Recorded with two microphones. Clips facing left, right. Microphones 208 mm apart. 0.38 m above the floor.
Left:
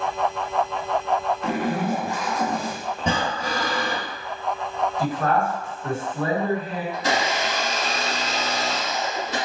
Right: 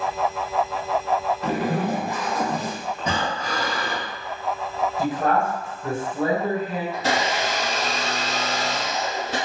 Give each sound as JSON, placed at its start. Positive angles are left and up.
{"t": 1.4, "sound": "a zipper", "side_deg": -35, "distance_m": 0.6}
{"t": 3.0, "sound": "breathing", "side_deg": 30, "distance_m": 0.8}
{"t": 5.0, "sound": "a man speaking", "side_deg": -25, "distance_m": 2.0}
{"t": 6.9, "sound": "a blender", "side_deg": -60, "distance_m": 1.3}